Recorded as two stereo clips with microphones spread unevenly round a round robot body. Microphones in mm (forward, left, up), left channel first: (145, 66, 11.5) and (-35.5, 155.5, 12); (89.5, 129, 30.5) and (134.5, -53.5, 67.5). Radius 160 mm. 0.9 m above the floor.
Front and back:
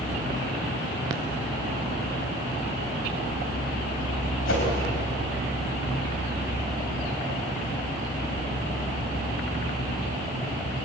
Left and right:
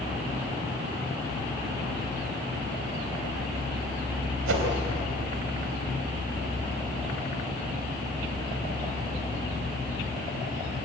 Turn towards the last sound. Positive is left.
turn(degrees=-80)